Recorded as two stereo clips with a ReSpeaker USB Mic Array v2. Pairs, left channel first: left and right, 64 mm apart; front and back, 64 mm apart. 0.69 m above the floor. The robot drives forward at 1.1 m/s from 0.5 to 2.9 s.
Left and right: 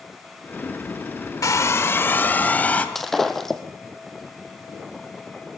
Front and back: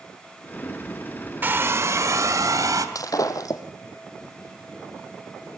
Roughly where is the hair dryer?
Behind left.